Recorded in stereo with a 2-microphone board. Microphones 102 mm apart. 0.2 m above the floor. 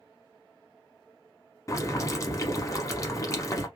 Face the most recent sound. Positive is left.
turn(degrees=35)  # may be behind; listen again after turning